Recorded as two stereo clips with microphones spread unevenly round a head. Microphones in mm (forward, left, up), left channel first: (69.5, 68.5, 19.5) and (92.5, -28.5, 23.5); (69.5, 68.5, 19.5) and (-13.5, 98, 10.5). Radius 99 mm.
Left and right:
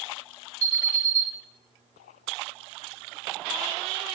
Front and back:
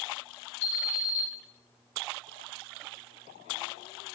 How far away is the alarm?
About 1.7 m.